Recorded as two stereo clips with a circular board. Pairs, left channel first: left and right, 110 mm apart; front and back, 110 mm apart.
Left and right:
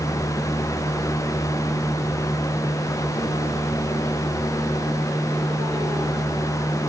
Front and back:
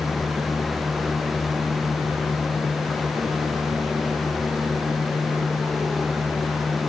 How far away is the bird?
No bird in this recording.